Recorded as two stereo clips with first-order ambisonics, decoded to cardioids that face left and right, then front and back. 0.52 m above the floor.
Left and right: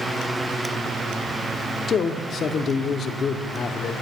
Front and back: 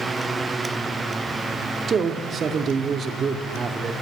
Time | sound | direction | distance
1.9 | a man speaking | 130° left | 0.9 m